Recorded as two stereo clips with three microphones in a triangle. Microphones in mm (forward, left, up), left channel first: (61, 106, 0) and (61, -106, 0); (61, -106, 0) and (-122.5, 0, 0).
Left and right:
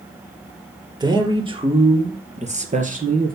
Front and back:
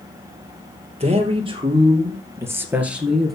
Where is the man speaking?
155° right, 2.5 m; by 3.4 s 120° right, 2 m.